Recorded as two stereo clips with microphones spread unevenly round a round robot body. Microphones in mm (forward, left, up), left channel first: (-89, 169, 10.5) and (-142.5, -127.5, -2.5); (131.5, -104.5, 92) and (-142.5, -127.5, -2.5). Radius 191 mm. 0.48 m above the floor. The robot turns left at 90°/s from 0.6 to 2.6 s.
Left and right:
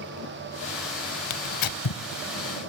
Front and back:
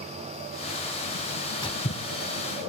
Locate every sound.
1.3 s tearing paper: 105° left, 0.5 m; by 2.0 s 45° left, 0.5 m